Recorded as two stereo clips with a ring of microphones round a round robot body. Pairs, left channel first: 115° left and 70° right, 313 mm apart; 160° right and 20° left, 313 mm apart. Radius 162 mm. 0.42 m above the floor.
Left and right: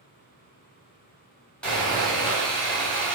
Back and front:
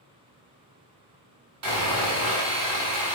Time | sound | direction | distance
1.6 | sawing | 25° left | 1.7 m